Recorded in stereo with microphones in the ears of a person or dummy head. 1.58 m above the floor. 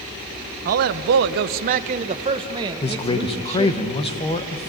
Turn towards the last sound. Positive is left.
turn(degrees=25)  # may be behind; listen again after turning